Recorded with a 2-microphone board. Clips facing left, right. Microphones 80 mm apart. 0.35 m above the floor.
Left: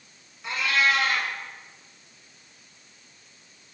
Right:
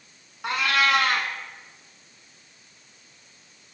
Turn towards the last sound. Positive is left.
turn(degrees=-65)  # may be behind; listen again after turning